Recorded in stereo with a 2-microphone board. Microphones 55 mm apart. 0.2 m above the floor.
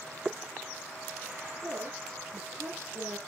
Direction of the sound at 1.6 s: 50° right (ahead or behind).